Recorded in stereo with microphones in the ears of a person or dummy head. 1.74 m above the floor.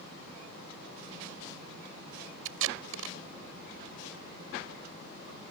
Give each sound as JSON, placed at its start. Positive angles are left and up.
{"t": 2.5, "sound": "tape being pulled", "side_deg": -75}